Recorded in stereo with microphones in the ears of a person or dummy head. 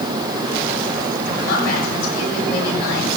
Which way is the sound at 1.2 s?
50° left (ahead or behind).